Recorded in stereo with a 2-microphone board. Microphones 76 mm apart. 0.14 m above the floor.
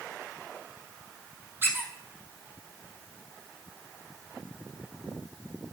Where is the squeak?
30° right (ahead or behind), 1.2 m.